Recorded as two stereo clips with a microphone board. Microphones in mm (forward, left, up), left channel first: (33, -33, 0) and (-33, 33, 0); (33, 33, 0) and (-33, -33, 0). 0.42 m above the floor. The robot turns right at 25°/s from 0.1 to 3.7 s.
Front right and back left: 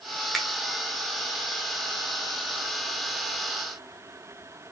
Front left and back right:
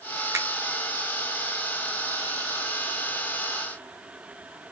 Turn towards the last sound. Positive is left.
turn(degrees=-50)